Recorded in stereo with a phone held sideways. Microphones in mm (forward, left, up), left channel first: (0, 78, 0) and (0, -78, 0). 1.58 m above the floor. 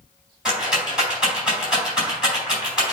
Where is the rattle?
5° right (ahead or behind), 4 m.